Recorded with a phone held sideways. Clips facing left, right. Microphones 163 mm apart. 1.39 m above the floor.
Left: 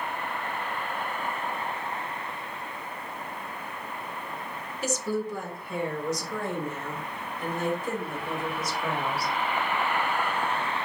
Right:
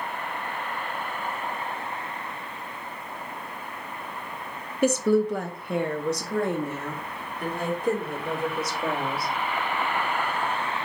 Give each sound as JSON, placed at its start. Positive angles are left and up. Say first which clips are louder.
{"t": 4.8, "sound": "a woman speaking", "louder": "right 9 dB", "side_deg": -60, "distance_m": 0.8}